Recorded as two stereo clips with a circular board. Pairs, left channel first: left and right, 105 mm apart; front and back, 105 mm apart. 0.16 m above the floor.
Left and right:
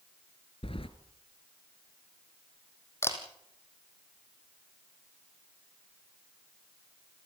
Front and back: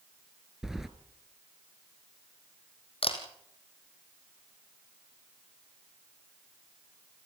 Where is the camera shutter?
25° left, 3.5 m.